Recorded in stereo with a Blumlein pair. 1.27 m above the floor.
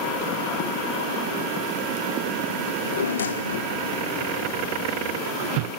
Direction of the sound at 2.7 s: 65° left.